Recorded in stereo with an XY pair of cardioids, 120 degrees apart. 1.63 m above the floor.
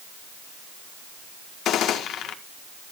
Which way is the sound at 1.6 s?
65° left.